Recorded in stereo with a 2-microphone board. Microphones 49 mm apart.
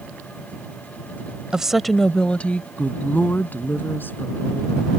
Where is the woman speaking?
15° right (ahead or behind); by 4.9 s 45° left (ahead or behind).